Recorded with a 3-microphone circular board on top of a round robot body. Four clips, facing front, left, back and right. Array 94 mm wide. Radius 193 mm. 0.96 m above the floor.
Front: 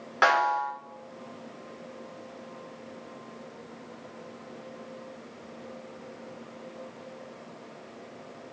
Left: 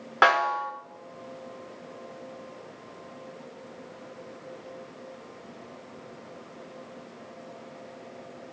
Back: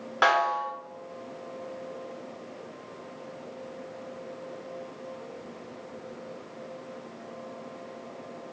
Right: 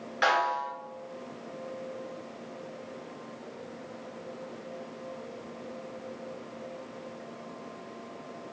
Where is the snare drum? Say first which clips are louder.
Left 4 dB, front 1 dB; 90° left, 4 m.